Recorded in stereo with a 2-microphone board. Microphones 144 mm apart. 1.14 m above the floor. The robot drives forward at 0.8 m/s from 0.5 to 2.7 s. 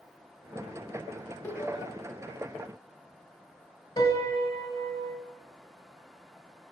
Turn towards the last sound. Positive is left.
turn(degrees=35)  # may be behind; listen again after turning